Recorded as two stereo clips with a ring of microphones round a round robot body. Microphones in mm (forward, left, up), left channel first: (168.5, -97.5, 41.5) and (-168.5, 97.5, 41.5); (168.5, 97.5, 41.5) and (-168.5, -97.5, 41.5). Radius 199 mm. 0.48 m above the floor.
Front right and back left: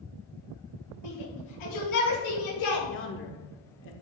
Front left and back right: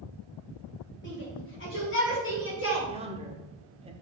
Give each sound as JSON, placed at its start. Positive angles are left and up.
{"t": 1.0, "sound": "a shout", "azimuth_deg": -30, "distance_m": 4.0}
{"t": 2.9, "sound": "a man speaking", "azimuth_deg": -80, "distance_m": 1.3}